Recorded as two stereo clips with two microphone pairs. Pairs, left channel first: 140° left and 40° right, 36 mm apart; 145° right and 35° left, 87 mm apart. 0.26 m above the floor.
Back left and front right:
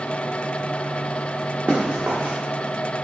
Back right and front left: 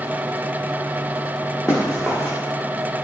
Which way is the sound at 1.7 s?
55° right.